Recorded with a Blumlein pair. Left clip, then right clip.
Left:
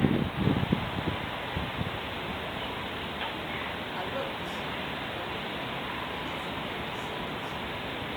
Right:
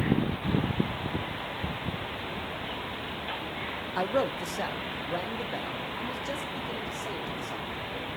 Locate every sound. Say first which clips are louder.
4.0 s a man speaking: right 9 dB; 65° right, 1.2 m; by 8.1 s 35° right, 4.5 m